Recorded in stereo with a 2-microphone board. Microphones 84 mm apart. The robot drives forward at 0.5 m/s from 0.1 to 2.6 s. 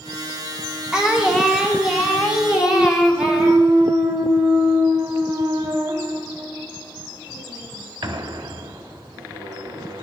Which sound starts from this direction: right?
A clunk, at 2.6 s.